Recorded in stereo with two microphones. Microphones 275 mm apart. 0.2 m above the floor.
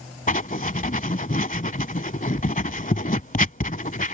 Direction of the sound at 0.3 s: 30° left (ahead or behind).